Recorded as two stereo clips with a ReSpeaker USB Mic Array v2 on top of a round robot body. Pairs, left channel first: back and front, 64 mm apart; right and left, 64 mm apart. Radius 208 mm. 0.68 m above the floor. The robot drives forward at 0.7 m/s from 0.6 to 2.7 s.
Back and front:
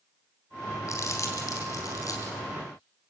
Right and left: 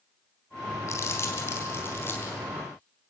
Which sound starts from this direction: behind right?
Crumpling, at 0.9 s.